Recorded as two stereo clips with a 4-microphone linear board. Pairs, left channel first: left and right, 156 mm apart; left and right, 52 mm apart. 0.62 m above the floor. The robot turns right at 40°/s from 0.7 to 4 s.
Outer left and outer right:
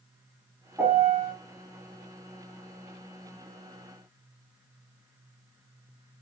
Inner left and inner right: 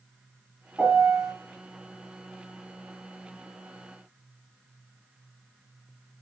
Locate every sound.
0.8 s a piano: 15° right (ahead or behind), 1.3 m; by 1.3 s 10° right (ahead or behind), 1.3 m